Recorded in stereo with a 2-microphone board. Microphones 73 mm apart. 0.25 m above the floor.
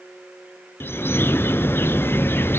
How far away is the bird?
About 0.7 m.